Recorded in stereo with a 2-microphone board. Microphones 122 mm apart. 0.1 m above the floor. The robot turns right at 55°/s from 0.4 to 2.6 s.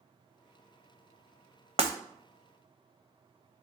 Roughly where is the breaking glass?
Right.